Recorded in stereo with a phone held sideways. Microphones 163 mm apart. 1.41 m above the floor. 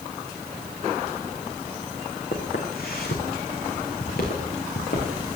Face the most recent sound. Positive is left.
turn(degrees=75)  # may be behind; listen again after turning